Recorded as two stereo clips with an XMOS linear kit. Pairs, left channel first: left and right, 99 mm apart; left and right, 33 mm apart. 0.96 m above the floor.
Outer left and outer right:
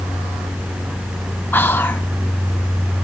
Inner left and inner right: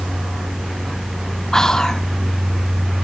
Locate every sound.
1.5 s whispering: 20° left (ahead or behind), 0.6 m